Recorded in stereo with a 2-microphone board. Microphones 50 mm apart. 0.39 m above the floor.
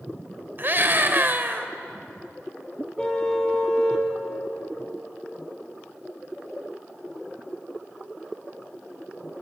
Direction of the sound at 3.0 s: 15° left (ahead or behind).